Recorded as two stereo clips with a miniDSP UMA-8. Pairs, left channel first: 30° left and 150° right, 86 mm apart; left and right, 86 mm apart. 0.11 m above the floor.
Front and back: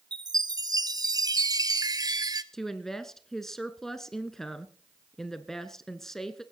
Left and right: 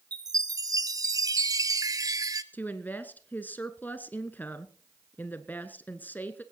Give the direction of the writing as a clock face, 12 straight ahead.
I don't hear writing.